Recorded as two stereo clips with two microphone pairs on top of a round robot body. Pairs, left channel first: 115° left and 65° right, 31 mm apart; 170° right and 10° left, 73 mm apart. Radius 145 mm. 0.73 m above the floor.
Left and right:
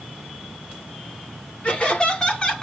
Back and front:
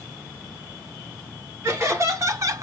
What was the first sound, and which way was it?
Laughter, 60° left.